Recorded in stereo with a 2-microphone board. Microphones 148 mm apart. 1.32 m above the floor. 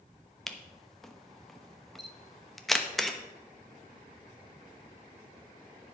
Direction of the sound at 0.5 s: Centre (ahead or behind).